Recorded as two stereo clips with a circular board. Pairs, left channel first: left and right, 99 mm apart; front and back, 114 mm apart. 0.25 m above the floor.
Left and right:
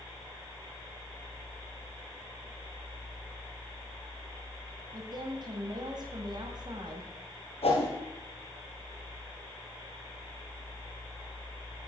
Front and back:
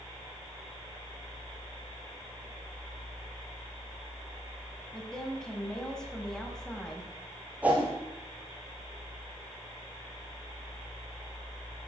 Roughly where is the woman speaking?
Right.